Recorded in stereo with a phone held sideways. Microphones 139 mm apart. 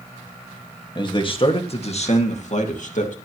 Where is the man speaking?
35° left (ahead or behind), 1.9 m; by 3.1 s 65° left (ahead or behind), 2.5 m.